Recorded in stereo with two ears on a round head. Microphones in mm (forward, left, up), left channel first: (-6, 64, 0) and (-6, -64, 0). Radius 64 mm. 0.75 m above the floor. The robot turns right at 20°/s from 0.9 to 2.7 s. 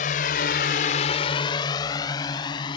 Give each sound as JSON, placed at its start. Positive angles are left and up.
{"t": 0.0, "sound": "a drone", "side_deg": 60}